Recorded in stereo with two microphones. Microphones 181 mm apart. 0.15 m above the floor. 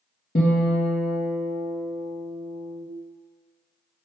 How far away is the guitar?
About 2.5 m.